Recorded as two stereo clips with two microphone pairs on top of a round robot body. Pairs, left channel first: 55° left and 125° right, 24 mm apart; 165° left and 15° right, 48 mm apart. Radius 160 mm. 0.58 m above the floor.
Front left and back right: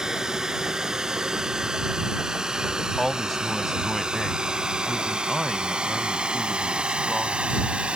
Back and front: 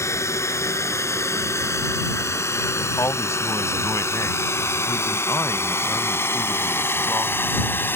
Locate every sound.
0.0 s a drone: 175° left; by 8.0 s 155° right
3.0 s a man speaking: 145° left